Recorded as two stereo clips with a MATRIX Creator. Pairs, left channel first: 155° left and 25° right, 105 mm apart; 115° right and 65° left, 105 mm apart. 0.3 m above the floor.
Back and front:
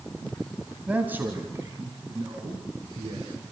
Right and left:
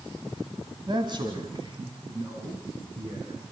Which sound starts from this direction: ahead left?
A man speaking, at 0.9 s.